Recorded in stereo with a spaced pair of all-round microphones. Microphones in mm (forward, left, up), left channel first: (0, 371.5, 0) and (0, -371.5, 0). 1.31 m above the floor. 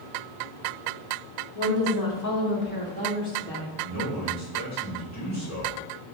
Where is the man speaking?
20° left (ahead or behind), 1.8 m.